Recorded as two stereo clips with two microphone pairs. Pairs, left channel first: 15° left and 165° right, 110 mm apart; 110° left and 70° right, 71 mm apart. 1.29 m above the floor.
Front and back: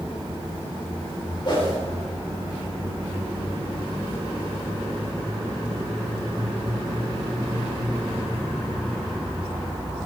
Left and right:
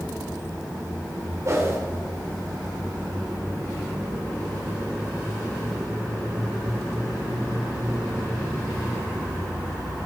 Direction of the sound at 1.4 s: 25° right.